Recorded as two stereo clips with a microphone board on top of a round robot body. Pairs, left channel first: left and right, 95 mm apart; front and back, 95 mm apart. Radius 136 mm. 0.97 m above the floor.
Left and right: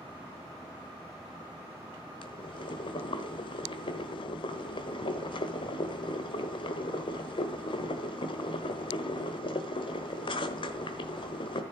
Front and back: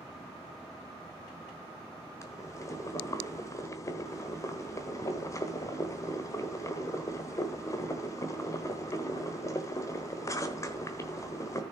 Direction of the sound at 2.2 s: 60° left.